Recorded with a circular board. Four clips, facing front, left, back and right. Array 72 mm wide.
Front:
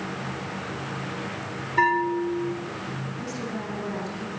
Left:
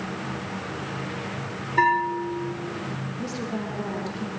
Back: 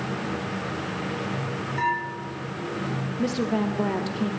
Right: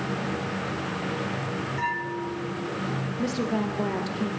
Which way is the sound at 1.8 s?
55° left.